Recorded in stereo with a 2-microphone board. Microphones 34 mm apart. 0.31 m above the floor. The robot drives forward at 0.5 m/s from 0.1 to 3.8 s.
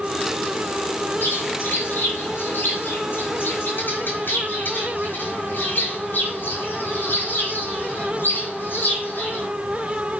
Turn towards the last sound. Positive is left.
turn(degrees=70)  # may be behind; listen again after turning